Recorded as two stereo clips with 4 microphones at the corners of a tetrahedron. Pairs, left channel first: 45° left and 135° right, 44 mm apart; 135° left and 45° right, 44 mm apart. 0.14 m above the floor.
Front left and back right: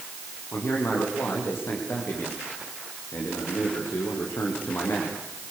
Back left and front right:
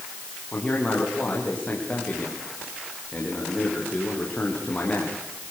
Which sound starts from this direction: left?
A man speaking, at 0.5 s.